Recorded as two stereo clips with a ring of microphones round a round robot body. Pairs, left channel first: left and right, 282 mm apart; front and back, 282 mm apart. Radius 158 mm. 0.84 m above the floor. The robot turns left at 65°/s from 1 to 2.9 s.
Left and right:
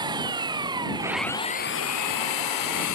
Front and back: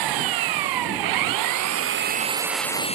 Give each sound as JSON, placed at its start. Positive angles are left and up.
{"t": 0.0, "sound": "an engine running", "azimuth_deg": -170}